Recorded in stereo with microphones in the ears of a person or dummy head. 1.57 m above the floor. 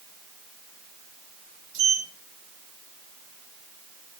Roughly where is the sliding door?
Right.